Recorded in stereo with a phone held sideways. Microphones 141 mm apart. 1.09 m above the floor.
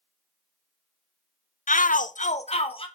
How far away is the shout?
About 0.5 m.